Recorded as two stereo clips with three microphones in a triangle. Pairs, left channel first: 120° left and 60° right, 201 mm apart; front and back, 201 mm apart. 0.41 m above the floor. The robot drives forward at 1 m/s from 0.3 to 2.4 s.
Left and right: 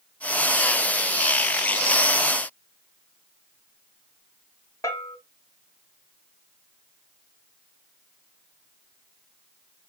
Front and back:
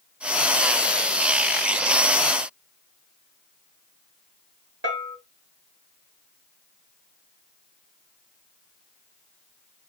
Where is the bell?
165° right, 3 m.